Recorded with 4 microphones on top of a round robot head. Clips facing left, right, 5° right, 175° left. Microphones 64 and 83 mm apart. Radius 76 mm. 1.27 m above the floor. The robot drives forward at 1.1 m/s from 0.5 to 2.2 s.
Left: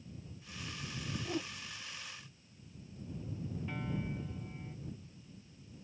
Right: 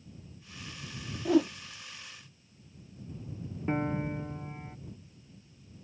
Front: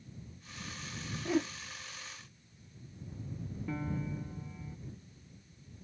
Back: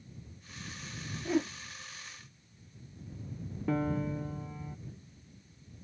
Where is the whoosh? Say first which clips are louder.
Right 16 dB, back 1 dB; 90° right; by 1.5 s 100° right.